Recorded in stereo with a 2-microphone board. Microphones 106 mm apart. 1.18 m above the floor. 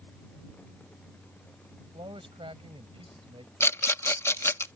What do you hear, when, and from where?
1.8 s a man speaking: 55° right (ahead or behind)
3.6 s a rattle: 25° left (ahead or behind)